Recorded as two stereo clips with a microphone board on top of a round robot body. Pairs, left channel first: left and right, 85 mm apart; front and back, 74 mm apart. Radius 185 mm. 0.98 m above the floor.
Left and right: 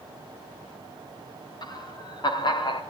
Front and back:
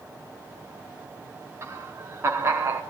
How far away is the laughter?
About 3 m.